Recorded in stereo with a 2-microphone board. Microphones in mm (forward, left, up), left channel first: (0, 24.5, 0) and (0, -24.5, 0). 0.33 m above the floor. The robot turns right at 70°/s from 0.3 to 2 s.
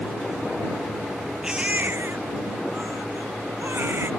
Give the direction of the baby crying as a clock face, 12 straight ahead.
6 o'clock.